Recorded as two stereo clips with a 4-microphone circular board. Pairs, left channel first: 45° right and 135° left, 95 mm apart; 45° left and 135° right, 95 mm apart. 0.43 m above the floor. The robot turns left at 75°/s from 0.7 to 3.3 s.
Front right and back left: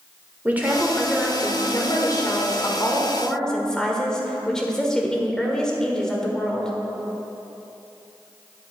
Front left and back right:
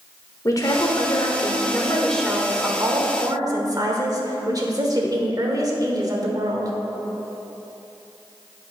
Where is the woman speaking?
70° left, 1.2 m; by 6.7 s 125° right, 1.2 m.